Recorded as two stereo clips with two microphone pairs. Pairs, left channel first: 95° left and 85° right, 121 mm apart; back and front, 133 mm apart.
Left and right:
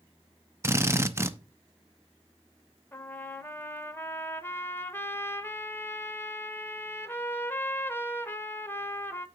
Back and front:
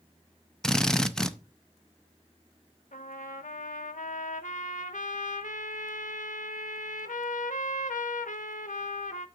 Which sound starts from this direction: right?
A drill, at 0.6 s.